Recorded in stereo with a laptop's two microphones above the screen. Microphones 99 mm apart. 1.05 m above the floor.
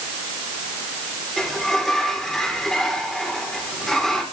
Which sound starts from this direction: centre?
A sliding door, at 1.4 s.